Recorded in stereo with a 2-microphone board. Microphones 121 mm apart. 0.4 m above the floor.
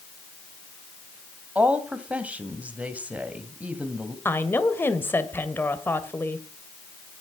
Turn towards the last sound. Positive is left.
turn(degrees=15)  # may be behind; listen again after turning